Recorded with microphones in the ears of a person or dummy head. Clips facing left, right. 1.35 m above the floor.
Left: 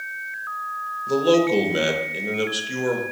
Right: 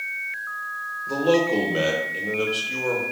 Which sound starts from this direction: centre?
A man speaking, at 1.1 s.